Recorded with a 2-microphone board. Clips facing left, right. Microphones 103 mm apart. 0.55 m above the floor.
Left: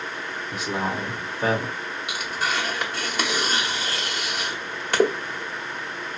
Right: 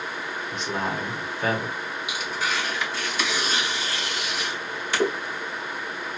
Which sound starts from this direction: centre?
A man speaking, at 0.5 s.